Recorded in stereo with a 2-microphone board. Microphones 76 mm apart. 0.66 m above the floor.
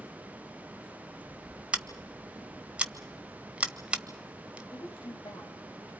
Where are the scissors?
15° right (ahead or behind), 1.1 m.